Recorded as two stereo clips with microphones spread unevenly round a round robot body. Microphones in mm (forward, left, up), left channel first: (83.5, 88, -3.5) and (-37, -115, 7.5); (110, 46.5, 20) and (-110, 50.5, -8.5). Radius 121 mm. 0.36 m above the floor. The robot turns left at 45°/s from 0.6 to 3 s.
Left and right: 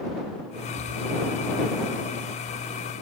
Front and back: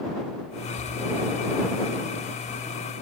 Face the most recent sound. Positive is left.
No sound to turn to.